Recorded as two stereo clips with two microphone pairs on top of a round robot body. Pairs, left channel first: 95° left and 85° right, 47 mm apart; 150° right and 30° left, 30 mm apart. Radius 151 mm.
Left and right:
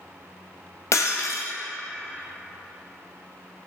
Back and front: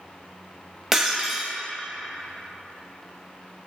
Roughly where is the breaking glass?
Left.